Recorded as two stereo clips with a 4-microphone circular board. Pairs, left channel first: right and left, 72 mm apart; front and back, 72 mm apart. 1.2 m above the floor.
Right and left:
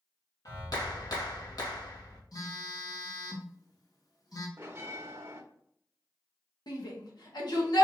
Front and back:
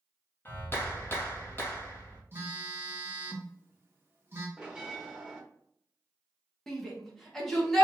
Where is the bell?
105° left, 0.9 m.